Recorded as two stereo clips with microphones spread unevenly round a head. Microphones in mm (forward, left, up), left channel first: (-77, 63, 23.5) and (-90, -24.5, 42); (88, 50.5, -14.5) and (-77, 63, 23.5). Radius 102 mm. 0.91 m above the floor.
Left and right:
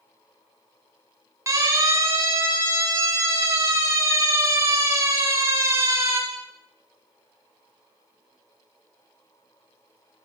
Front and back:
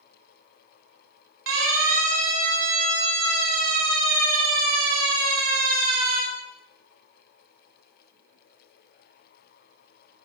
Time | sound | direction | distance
1.5 | a siren | 155° right | 9.5 m